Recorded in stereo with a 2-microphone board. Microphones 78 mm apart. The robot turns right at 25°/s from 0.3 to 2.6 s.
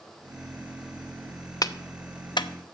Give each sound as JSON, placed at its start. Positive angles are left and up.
{"t": 1.6, "sound": "a clap", "side_deg": 50, "distance_m": 0.8}